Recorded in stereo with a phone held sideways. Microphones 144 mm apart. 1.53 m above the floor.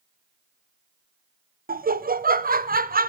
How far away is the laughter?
About 0.5 m.